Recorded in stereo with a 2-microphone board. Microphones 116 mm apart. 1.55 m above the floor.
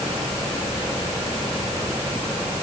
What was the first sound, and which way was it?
Only background noise.